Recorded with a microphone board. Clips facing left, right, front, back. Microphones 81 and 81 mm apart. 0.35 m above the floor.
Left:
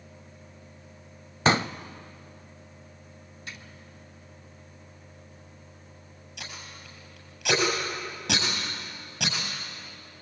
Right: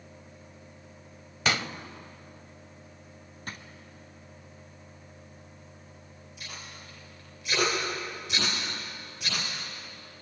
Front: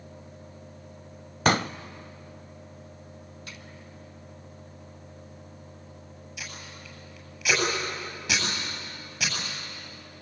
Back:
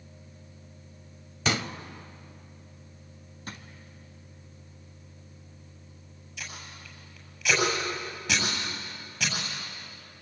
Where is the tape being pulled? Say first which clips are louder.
Left 2 dB, even; 80° left, 8 m.